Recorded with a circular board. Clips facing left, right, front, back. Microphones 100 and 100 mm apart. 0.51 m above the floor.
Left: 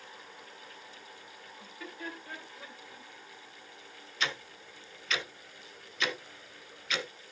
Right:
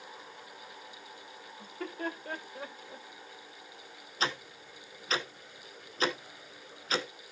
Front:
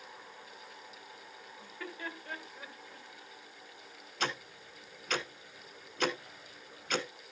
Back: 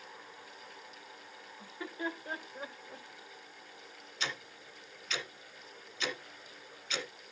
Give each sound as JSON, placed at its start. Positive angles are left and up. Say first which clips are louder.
{"t": 1.6, "sound": "laughter", "louder": "right 6 dB, back 4 dB", "azimuth_deg": -110, "distance_m": 1.8}
{"t": 4.2, "sound": "ticking", "louder": "right 2 dB, front 5 dB", "azimuth_deg": -35, "distance_m": 1.1}